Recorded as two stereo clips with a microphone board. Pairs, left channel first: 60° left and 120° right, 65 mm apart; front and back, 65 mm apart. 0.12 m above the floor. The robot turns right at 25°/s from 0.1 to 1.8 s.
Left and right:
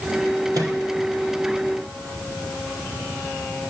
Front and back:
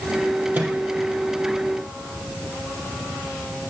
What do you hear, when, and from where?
0.5 s a microwave: 125° right, 3 m; by 0.8 s 115° right, 3 m